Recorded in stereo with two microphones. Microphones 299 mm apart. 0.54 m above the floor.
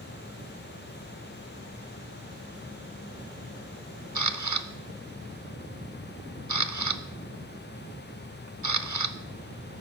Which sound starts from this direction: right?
A camera shutter, at 4.2 s.